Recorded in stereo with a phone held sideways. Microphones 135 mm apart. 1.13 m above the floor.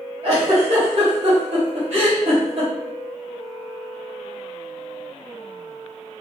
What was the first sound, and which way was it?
A giggle, 55° right (ahead or behind).